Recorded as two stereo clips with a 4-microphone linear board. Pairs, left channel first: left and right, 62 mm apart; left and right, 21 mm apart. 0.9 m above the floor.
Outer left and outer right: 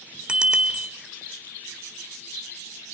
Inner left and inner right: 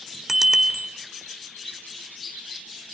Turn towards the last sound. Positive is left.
turn(degrees=-15)  # may be behind; listen again after turning